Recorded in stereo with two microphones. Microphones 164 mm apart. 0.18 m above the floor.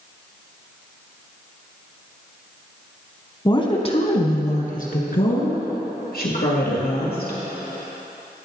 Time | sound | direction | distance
3.5 | a woman speaking | 25° left (ahead or behind) | 1.2 m